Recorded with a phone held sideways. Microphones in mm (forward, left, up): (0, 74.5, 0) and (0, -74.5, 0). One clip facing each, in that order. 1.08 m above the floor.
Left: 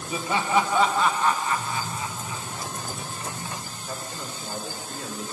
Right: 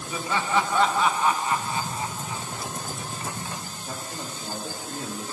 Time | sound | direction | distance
0.1 | laughter | 25° left (ahead or behind) | 1.0 m
1.5 | typing on a keyboard | 55° right (ahead or behind) | 1.2 m
3.9 | a man speaking | 75° right (ahead or behind) | 2.5 m